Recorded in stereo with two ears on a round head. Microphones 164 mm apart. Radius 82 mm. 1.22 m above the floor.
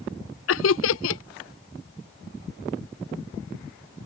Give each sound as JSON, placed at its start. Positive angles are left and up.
{"t": 0.5, "sound": "laughter", "side_deg": 75}